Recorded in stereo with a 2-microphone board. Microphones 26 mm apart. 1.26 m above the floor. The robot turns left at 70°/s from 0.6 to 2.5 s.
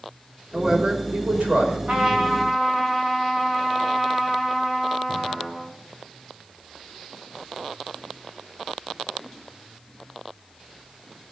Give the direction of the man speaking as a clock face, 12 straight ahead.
1 o'clock.